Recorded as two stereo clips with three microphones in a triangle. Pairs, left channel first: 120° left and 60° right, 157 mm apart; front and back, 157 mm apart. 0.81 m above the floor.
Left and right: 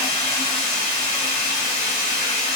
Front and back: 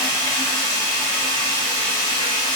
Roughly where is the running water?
Ahead right.